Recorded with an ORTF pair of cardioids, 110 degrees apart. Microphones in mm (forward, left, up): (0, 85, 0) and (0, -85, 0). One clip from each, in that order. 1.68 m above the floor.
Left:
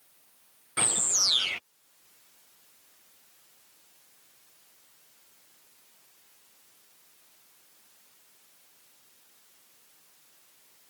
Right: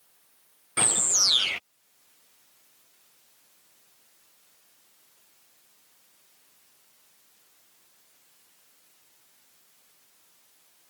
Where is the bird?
15° right.